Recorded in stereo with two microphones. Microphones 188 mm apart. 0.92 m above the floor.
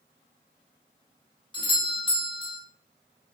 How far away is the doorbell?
About 0.7 m.